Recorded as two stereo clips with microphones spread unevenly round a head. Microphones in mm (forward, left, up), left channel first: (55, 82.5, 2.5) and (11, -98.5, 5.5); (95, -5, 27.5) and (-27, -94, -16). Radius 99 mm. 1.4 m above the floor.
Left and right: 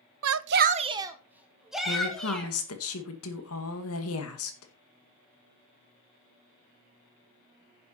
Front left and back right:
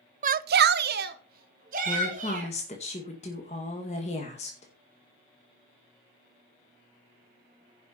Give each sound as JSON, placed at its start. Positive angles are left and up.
{"t": 0.2, "sound": "a shout", "azimuth_deg": -110, "distance_m": 0.6}
{"t": 1.9, "sound": "a woman speaking", "azimuth_deg": 100, "distance_m": 2.0}